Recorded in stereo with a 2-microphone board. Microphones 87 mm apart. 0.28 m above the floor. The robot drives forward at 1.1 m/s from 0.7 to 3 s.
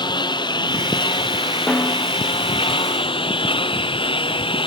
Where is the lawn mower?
60° left (ahead or behind); by 4.7 s 85° left.